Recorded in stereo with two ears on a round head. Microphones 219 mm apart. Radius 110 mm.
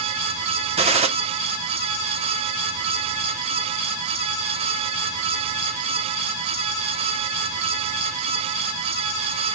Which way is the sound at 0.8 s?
25° right (ahead or behind).